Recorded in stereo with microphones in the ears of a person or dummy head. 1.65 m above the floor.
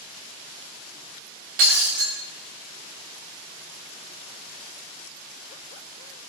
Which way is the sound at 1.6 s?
50° right (ahead or behind).